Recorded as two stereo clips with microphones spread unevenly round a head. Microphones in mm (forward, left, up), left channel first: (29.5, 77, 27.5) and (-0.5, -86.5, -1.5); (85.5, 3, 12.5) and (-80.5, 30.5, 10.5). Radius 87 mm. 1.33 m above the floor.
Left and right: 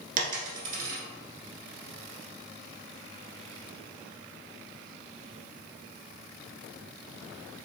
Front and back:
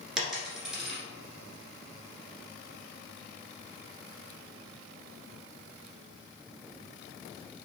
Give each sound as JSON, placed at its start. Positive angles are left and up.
{"t": 0.2, "sound": "a dropped coin", "azimuth_deg": -100, "distance_m": 1.4}